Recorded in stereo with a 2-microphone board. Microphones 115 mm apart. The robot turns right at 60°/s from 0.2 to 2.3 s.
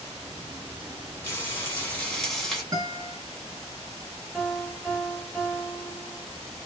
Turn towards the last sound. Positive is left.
turn(degrees=-5)  # may be behind; listen again after turning